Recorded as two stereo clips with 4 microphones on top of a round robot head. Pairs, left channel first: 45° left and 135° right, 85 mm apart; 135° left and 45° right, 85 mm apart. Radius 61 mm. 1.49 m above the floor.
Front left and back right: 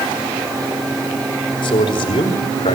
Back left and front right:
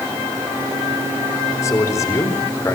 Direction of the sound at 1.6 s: 75° left.